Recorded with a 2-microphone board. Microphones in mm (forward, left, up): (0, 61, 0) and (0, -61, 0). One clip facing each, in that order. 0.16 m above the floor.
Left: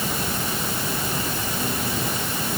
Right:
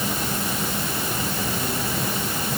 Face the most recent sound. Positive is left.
No sound to turn to.